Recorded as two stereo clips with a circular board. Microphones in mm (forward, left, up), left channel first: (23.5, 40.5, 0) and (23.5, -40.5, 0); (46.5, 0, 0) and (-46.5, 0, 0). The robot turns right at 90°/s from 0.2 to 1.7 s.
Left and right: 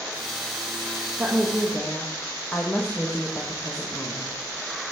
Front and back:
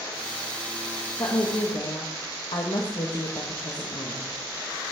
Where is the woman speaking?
30° right, 1.6 m; by 4.3 s 15° left, 1.6 m.